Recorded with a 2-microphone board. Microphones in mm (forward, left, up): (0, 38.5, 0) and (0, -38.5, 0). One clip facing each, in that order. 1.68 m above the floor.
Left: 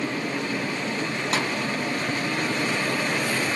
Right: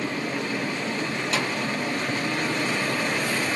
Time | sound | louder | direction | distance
1.3 | a snare drum | left 1 dB | 45° left (ahead or behind) | 0.8 m